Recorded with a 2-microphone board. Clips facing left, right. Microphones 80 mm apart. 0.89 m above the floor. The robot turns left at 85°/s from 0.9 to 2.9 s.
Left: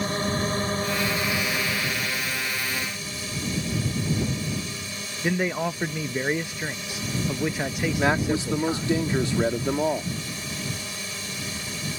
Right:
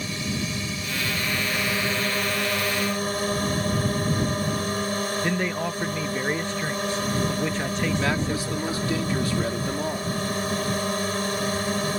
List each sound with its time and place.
0.0 s a drone: 50° left; by 12.0 s 120° right
5.2 s a man speaking: 10° left (ahead or behind)
8.0 s a man speaking: 25° left (ahead or behind)